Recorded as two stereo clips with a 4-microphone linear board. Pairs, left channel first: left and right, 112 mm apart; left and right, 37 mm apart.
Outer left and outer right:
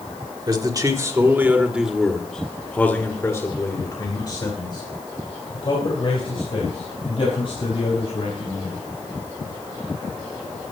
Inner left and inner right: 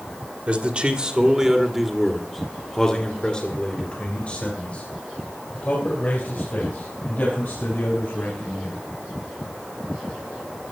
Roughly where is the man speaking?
Right.